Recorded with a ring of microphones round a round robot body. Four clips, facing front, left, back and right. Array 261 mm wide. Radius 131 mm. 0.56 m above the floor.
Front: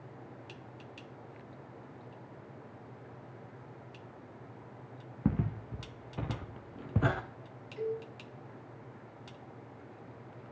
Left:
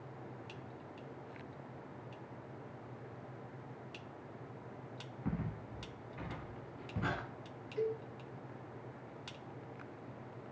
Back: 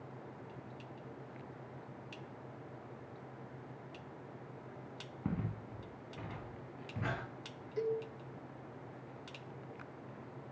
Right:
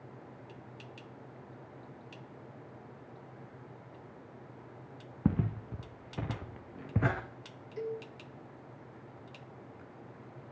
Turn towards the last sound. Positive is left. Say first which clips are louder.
# left 1 dB, even
turn(degrees=-150)